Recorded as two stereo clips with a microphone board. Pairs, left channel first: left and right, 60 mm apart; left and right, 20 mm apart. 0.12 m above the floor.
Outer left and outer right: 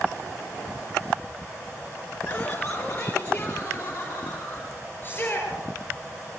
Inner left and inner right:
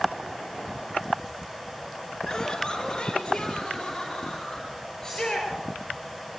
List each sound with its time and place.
2.3 s laughter: 25° left (ahead or behind), 1.9 m; by 4.7 s 20° left (ahead or behind), 4.5 m
5.0 s a shout: 30° left (ahead or behind), 10 m